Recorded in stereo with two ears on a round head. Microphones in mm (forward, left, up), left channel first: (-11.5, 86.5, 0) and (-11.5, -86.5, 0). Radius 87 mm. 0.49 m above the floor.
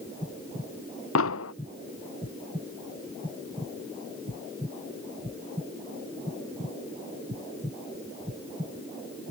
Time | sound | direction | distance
1.1 | an explosion | 75° left (ahead or behind) | ?